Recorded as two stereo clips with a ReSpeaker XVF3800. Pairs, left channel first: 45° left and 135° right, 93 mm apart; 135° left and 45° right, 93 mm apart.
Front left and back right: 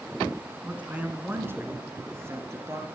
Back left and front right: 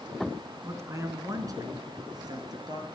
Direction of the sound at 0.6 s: 70° right.